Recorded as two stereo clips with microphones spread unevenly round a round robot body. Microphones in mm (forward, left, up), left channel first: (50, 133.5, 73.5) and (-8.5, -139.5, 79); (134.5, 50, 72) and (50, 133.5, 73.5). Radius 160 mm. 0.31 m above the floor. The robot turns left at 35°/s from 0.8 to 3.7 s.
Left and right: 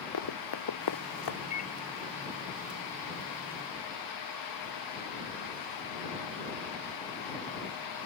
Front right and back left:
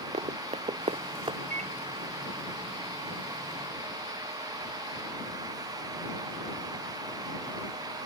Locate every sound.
0.1 s running footsteps: 110° left; by 1.4 s 85° left
1.5 s a microwave: 145° left; by 1.7 s 135° left